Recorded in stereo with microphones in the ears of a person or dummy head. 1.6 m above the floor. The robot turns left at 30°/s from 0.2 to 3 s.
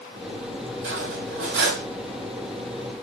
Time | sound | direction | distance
0.8 | cutlery clinking | 85° right | 3.5 m